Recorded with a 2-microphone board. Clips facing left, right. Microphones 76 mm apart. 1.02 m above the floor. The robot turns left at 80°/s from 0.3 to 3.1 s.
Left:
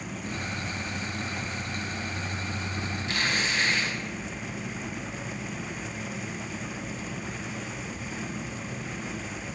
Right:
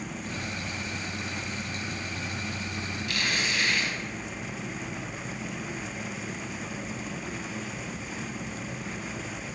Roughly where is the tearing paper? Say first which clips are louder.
Left 2 dB; left.